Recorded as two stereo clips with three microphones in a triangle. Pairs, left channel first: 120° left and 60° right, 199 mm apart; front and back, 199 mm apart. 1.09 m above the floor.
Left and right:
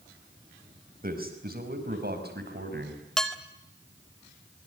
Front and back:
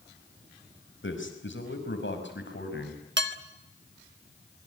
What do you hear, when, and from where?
1.0 s a man speaking: 15° right, 5 m; by 3.0 s 30° right, 6 m
3.2 s dishes clattering: 150° right, 1.5 m